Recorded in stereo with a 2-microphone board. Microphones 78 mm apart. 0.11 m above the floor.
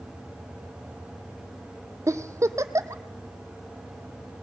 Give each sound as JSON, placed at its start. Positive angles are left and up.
{"t": 2.1, "sound": "a giggle", "side_deg": -40, "distance_m": 0.6}